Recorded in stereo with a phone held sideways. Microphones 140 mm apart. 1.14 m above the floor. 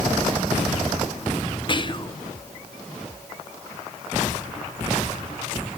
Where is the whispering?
35° left (ahead or behind), 0.6 m.